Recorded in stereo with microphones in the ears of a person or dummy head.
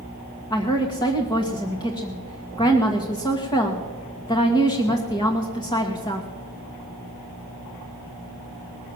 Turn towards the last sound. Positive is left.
turn(degrees=20)  # may be behind; listen again after turning